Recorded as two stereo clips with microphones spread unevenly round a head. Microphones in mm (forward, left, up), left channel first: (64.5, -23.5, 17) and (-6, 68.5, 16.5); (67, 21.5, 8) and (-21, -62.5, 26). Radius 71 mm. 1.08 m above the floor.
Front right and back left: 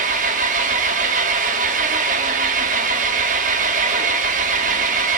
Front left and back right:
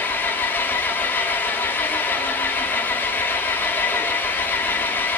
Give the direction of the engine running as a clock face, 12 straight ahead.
8 o'clock.